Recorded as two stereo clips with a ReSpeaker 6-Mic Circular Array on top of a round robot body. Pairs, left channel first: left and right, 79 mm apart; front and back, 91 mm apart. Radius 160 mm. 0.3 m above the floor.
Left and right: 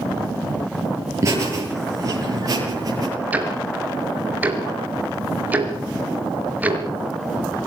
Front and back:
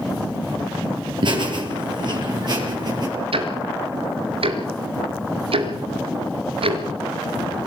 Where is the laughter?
145° right, 8.5 m; by 3.1 s 135° right, 9 m.